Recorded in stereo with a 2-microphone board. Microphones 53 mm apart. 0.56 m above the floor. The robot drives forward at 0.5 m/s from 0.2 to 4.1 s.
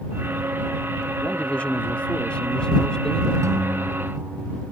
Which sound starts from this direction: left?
A man speaking, at 1.2 s.